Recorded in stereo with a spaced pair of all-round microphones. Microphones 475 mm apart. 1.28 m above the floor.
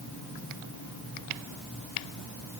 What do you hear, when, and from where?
Only background noise.